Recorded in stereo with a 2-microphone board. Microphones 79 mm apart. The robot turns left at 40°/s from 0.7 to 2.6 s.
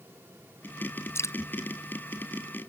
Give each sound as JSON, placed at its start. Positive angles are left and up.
{"t": 1.1, "sound": "dripping", "side_deg": 30}